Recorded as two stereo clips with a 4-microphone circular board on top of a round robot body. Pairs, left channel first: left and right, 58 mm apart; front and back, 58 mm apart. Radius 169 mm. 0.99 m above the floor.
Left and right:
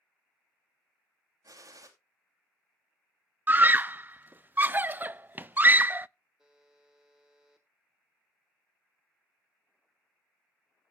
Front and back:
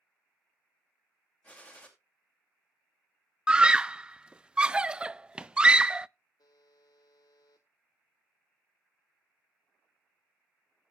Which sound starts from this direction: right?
A gunshot, at 1.4 s.